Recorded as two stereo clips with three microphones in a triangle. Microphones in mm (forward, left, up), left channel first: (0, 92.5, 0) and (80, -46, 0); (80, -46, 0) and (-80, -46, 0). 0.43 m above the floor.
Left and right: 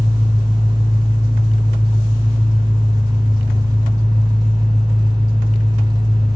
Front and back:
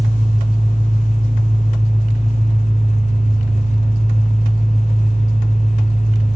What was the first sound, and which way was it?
An engine running, 20° left.